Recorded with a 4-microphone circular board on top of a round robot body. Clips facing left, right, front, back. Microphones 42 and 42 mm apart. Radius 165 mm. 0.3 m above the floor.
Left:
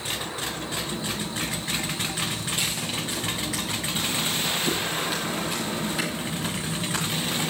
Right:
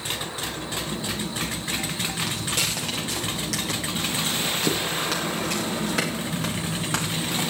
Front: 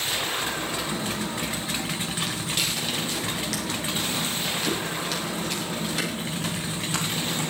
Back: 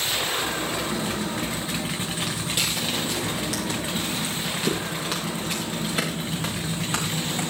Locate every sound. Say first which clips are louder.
2.2 s footsteps: right 1 dB, back 1 dB; 100° right, 5 m; by 7.4 s 115° right, 8 m